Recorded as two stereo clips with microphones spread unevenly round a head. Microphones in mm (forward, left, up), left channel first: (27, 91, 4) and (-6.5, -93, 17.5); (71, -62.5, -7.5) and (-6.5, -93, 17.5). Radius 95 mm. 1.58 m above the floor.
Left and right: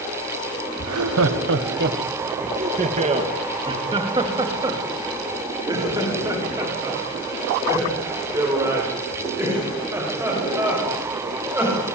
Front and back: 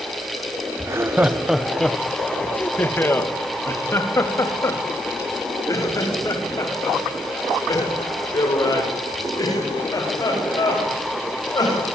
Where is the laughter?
105° right, 1.1 m; by 11.8 s 20° right, 10.5 m.